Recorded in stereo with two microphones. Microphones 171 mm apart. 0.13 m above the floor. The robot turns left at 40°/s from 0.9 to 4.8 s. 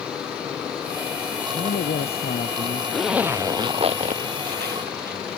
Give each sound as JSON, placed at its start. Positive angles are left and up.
{"t": 1.5, "sound": "a man speaking", "azimuth_deg": 90}
{"t": 2.9, "sound": "a zipper", "azimuth_deg": 0}